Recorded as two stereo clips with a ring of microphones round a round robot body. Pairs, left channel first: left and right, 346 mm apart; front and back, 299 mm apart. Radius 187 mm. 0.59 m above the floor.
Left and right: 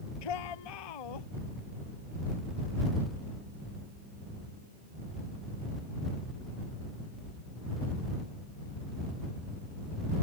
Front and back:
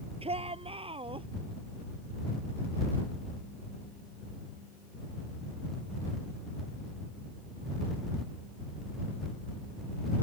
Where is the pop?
No pop in this recording.